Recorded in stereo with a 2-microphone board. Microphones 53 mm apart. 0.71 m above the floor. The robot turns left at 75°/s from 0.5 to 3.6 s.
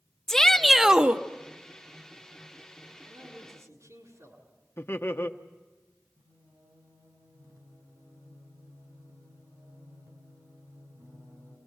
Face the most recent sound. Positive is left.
turn(degrees=-80)